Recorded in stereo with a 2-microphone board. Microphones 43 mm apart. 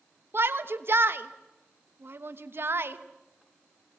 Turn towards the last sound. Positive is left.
turn(degrees=-60)  # may be behind; listen again after turning